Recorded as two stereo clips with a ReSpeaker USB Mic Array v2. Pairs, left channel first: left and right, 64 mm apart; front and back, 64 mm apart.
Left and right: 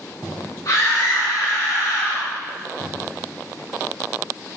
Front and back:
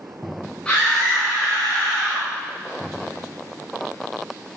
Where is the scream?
75° left, 4 m.